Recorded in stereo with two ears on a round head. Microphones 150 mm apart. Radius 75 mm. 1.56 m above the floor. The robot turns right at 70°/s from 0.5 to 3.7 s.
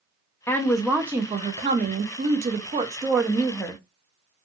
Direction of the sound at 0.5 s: 160° left.